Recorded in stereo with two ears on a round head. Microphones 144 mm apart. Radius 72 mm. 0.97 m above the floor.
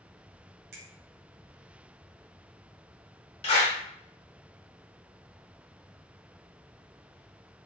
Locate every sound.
0.7 s a finger snap: 65° right (ahead or behind), 0.7 m
3.4 s a clap: 40° left (ahead or behind), 1.0 m